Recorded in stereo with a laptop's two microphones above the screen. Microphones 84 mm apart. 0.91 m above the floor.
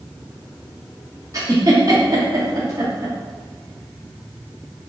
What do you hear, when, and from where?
1.3 s a giggle: 40° right (ahead or behind), 1.2 m